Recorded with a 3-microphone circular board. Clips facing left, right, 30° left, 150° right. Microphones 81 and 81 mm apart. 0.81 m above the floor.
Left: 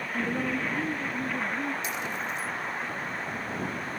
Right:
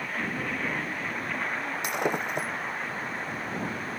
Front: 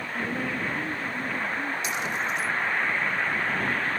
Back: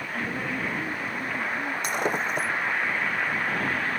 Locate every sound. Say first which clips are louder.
0.1 s a woman speaking: left 4 dB, front 1 dB; 120° left
1.8 s breaking glass: right 4 dB, back 2 dB; 110° right